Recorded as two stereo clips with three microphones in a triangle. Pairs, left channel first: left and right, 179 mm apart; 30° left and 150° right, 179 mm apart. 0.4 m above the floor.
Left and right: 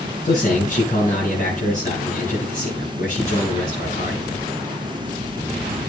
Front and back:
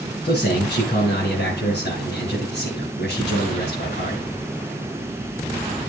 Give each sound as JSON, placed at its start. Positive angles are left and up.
{"t": 0.2, "sound": "a man speaking", "azimuth_deg": 55, "distance_m": 8.5}